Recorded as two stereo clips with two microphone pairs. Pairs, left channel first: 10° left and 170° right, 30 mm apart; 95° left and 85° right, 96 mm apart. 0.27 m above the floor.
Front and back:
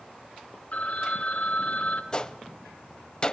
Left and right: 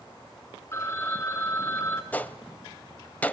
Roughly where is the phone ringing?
Ahead left.